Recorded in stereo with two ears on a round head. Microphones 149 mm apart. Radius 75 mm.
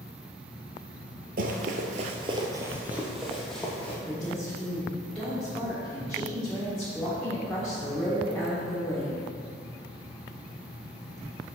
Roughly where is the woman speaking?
Centre.